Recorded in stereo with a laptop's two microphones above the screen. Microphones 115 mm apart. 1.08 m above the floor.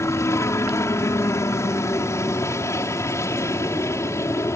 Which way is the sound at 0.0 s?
25° left (ahead or behind).